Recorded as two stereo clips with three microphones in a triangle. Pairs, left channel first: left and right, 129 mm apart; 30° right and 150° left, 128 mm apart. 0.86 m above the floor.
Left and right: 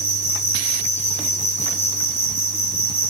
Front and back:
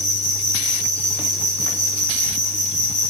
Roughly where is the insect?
Behind.